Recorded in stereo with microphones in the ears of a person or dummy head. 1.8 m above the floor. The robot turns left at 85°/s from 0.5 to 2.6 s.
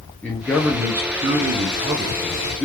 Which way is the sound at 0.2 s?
5° left.